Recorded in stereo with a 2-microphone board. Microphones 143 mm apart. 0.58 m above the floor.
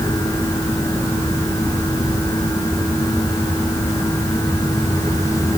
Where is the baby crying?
I don't hear a baby crying.